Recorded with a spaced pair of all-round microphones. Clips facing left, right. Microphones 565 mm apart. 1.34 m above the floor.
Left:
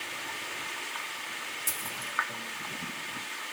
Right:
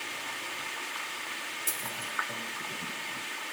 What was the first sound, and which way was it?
A dropped coin, 25° left (ahead or behind).